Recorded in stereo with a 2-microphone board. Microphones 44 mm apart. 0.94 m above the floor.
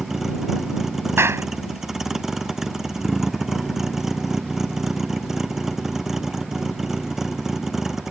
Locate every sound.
0.0 s a vehicle: 10° right (ahead or behind)
1.2 s a clap: 75° right (ahead or behind)